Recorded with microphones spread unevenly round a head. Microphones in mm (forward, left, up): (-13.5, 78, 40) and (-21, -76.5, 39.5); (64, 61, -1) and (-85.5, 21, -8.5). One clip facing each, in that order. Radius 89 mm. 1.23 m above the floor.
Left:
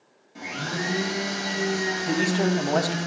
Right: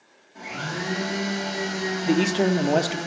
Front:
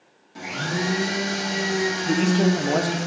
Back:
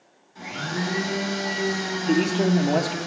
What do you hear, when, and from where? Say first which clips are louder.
0.3 s a blender: left 1 dB, front 2 dB; 25° left, 3 m
2.1 s a man speaking: right 4 dB, back 1 dB; 90° right, 0.5 m